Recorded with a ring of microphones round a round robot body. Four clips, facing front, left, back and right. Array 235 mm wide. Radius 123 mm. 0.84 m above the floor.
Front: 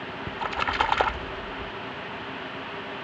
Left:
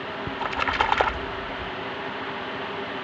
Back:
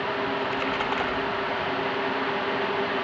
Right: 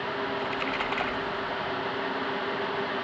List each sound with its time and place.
0.3 s a splash: 55° left